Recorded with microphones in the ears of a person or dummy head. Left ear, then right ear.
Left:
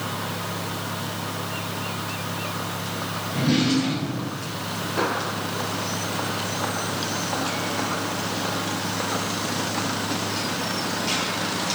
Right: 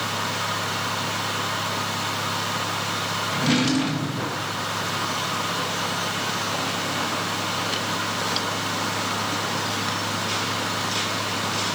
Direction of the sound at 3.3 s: 45° right (ahead or behind).